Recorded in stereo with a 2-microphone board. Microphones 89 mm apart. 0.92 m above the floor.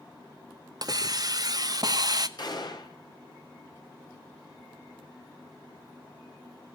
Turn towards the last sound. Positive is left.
turn(degrees=50)  # may be behind; listen again after turning